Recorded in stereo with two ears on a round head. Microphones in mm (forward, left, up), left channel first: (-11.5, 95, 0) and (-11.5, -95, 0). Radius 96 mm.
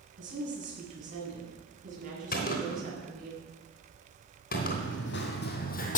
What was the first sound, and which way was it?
A woman speaking, 40° right (ahead or behind).